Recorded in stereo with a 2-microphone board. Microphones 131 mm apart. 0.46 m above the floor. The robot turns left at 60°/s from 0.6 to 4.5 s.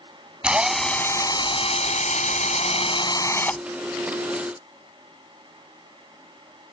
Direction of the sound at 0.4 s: 170° right.